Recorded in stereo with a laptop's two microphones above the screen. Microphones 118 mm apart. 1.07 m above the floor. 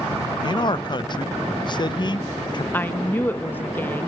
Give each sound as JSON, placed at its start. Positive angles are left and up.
{"t": 0.4, "sound": "a man speaking", "side_deg": 40, "distance_m": 0.6}
{"t": 2.7, "sound": "a woman speaking", "side_deg": 15, "distance_m": 1.0}